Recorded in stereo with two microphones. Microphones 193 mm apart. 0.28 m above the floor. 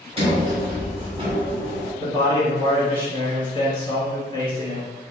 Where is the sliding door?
30° right (ahead or behind), 1.1 m.